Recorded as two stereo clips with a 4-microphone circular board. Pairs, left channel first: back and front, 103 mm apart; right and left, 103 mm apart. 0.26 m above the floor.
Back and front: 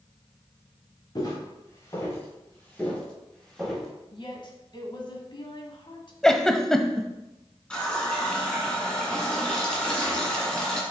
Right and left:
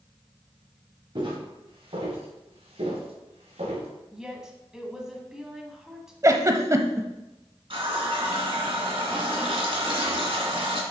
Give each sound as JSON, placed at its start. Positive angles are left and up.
{"t": 1.1, "sound": "footsteps", "azimuth_deg": 125, "distance_m": 3.0}
{"t": 4.1, "sound": "a woman speaking", "azimuth_deg": 170, "distance_m": 1.6}
{"t": 6.2, "sound": "a giggle", "azimuth_deg": 100, "distance_m": 0.6}
{"t": 7.7, "sound": "a running tap", "azimuth_deg": 100, "distance_m": 2.0}